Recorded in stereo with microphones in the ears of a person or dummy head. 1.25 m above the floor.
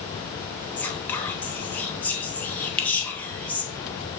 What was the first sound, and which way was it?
Whispering, 10° left (ahead or behind).